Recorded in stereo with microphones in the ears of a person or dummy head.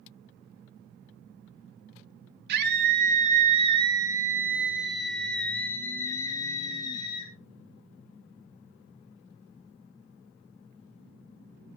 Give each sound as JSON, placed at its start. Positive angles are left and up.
{"t": 2.5, "sound": "a scream", "side_deg": -60, "distance_m": 2.5}